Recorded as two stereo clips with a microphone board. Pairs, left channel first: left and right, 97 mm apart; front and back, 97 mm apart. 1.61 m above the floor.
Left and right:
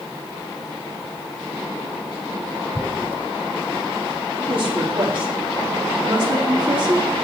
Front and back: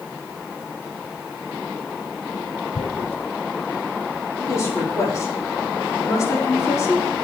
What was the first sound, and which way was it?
Tearing paper, 15° left.